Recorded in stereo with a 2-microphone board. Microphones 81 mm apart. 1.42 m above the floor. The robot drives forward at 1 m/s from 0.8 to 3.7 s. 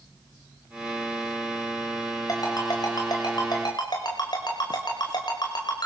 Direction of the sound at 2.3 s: 50° left (ahead or behind).